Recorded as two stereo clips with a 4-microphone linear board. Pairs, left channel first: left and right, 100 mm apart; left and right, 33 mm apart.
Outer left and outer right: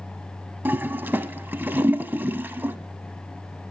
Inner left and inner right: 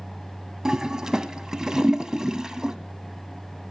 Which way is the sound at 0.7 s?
20° right (ahead or behind).